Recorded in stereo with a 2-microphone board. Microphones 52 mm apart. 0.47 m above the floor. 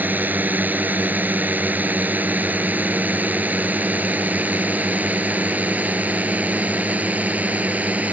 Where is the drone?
35° right (ahead or behind); by 8.1 s 30° right (ahead or behind).